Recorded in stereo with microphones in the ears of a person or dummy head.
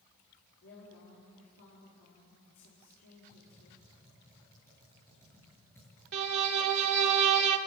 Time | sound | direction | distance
0.6 | a woman speaking | 90° left | 5 m
3.3 | typing on a keyboard | 15° left (ahead or behind) | 8 m
6.1 | a violin | 65° right (ahead or behind) | 1.8 m